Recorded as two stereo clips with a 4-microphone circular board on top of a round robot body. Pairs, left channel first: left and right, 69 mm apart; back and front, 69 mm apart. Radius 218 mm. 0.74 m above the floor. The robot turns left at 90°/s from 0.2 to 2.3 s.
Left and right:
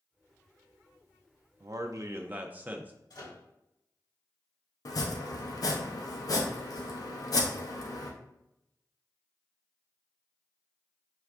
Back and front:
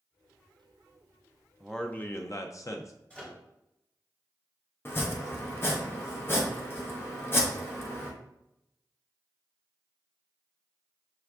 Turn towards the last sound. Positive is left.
turn(degrees=125)